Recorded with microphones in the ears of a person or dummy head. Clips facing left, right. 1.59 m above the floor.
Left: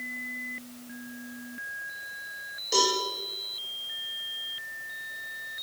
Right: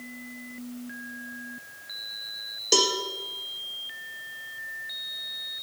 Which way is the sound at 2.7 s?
65° right (ahead or behind).